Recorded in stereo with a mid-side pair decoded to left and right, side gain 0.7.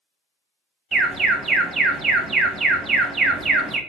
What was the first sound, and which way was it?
An alarm, 30° right.